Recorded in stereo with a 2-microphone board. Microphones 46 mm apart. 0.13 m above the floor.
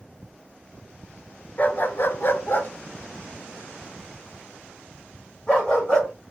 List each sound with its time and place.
1.6 s a dog barking: 40° left (ahead or behind), 0.5 m; by 6.1 s 20° left (ahead or behind), 2.5 m